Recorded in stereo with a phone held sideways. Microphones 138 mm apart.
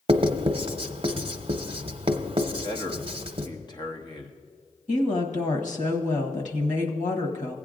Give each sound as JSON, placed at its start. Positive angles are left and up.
{"t": 0.1, "sound": "writing", "side_deg": -45, "distance_m": 0.8}
{"t": 2.6, "sound": "a man speaking", "side_deg": 30, "distance_m": 0.9}
{"t": 4.9, "sound": "a woman speaking", "side_deg": 60, "distance_m": 1.2}